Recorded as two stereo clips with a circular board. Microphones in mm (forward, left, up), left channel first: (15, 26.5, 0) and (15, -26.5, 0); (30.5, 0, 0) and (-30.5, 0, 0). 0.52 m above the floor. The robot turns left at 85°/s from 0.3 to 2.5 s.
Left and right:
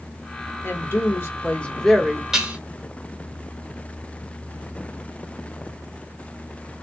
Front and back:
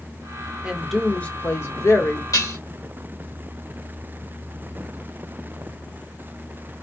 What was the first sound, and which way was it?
A woman speaking, 115° left.